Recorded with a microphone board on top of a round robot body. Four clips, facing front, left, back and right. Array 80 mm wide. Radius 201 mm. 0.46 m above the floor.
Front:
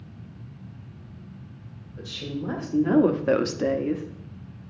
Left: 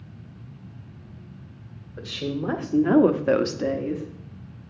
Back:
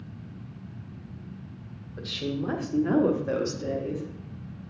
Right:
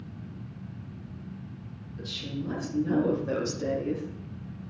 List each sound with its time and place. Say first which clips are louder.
2.0 s a woman speaking: left 7 dB, back 2 dB; 110° left, 2.0 m; by 4.0 s straight ahead, 1.3 m